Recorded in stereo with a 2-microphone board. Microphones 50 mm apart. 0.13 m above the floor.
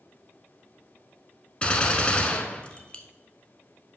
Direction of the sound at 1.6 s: 25° left (ahead or behind).